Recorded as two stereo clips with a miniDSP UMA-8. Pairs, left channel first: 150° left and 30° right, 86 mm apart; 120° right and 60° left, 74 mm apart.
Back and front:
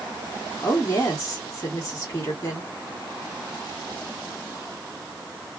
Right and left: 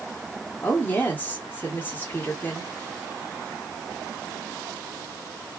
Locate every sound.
0.6 s a woman speaking: 170° right, 1.5 m